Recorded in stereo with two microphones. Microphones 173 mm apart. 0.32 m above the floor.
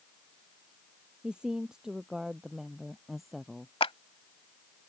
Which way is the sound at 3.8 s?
35° left (ahead or behind).